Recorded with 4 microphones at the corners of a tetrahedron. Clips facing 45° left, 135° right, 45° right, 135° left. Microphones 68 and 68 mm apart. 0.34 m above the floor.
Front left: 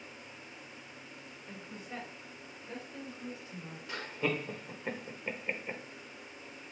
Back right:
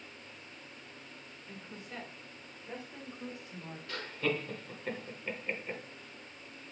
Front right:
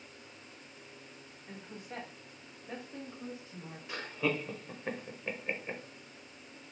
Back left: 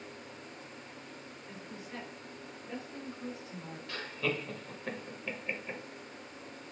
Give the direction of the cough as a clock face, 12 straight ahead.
I don't hear a cough.